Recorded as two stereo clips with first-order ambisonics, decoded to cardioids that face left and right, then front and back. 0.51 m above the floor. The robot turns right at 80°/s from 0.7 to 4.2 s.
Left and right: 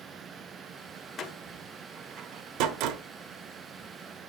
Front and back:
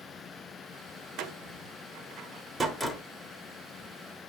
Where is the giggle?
I don't hear a giggle.